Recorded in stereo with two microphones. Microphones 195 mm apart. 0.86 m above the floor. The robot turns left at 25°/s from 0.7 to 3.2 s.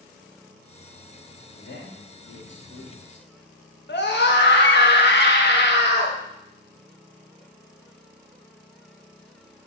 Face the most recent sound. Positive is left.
turn(degrees=60)  # may be behind; listen again after turning